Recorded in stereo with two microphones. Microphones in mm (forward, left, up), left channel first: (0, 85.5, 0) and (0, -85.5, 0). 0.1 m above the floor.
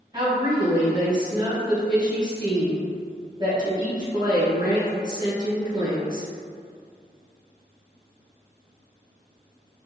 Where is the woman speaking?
25° right (ahead or behind), 1.4 m.